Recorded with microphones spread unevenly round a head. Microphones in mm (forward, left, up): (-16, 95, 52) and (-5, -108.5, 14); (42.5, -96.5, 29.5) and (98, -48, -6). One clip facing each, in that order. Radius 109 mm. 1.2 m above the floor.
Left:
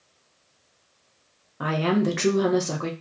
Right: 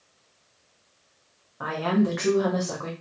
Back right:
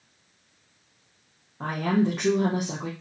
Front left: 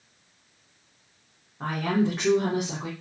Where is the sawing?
I don't hear sawing.